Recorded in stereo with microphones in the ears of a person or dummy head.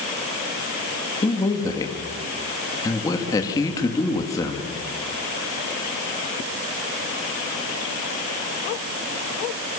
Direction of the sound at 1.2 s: 20° left (ahead or behind).